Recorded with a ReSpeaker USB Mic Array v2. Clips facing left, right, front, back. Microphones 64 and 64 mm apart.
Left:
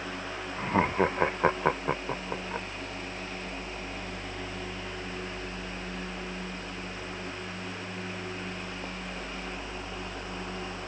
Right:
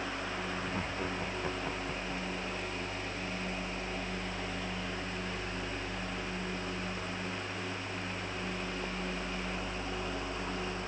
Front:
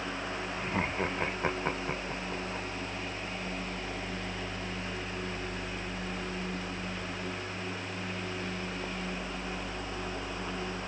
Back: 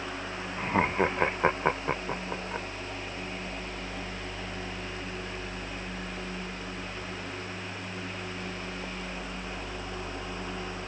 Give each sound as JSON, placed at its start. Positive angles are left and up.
{"t": 0.6, "sound": "laughter", "azimuth_deg": 125}